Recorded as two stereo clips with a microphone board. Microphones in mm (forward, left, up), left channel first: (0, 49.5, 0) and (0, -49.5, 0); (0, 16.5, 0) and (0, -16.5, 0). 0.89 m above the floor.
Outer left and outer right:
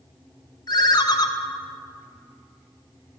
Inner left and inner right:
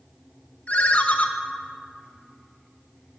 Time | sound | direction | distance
0.7 | a ringtone | 40° left (ahead or behind) | 0.5 m